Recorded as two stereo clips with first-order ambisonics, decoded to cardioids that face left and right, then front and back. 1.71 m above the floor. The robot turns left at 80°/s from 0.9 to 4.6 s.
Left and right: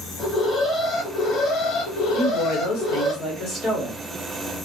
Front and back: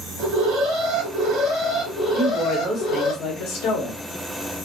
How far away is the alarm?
About 1.8 m.